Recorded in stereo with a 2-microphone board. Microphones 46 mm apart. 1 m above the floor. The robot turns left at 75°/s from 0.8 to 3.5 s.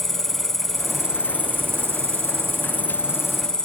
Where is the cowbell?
No cowbell in this recording.